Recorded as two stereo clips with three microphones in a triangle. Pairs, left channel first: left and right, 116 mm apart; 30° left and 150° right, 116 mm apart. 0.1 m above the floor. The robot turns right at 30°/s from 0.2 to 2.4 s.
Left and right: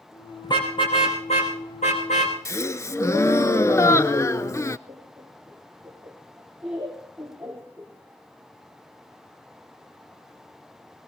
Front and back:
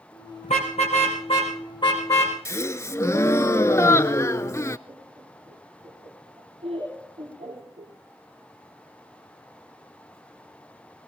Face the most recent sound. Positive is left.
turn(degrees=-175)